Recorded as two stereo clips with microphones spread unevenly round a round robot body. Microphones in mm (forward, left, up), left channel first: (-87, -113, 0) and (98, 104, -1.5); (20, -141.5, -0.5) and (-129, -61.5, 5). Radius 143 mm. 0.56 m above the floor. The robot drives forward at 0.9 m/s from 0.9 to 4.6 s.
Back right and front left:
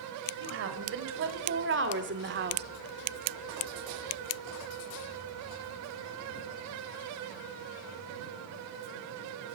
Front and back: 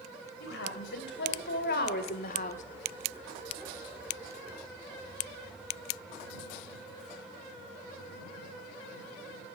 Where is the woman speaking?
Straight ahead, 2.5 m; by 2.6 s 5° left, 1.2 m.